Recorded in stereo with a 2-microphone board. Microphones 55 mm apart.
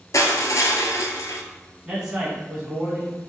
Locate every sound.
0.1 s crushing: 75° left (ahead or behind), 0.7 m
1.9 s a man speaking: 10° right (ahead or behind), 1.5 m